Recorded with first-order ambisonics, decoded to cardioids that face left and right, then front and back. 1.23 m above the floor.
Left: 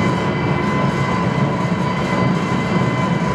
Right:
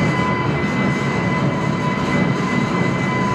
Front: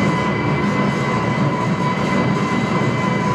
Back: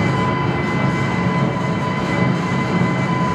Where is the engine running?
80° left, 1.3 m.